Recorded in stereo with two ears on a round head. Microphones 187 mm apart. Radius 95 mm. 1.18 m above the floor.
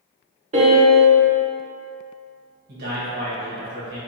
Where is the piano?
35° right (ahead or behind), 0.8 m.